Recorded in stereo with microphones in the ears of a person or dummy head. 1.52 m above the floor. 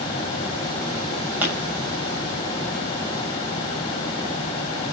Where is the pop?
5° right (ahead or behind), 7.5 m.